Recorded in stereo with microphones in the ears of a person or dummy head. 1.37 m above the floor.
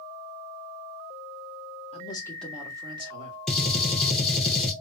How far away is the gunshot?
About 0.8 m.